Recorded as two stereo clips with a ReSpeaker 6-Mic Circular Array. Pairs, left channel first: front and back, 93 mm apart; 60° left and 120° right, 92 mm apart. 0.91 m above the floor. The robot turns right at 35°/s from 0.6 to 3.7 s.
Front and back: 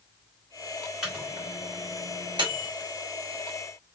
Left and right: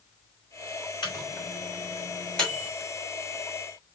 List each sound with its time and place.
1.0 s a microwave: 95° left, 2.5 m; by 2.7 s 155° left, 2.5 m